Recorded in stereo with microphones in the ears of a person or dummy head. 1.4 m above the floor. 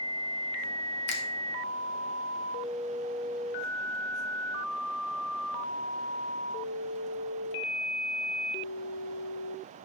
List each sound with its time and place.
1.1 s a finger snap: 70° left (ahead or behind), 2 m